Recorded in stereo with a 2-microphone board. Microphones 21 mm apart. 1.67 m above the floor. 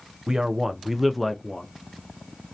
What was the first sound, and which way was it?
A man speaking, 30° right (ahead or behind).